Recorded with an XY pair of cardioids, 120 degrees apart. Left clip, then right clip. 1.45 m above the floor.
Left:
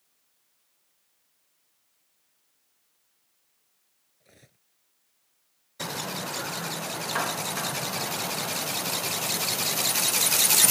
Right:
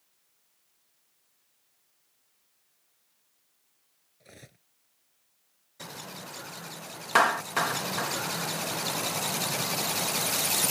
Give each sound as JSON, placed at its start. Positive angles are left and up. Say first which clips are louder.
{"t": 4.2, "sound": "cutlery clinking", "louder": "right 6 dB", "azimuth_deg": -35}
{"t": 7.2, "sound": "a clap", "louder": "right 8 dB", "azimuth_deg": -50}